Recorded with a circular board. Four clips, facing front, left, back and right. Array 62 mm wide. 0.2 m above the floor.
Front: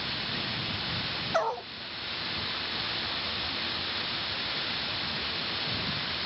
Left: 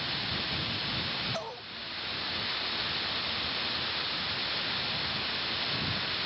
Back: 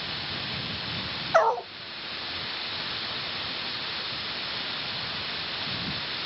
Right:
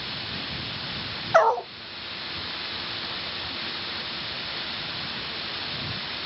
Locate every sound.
1.3 s a dog barking: 115° right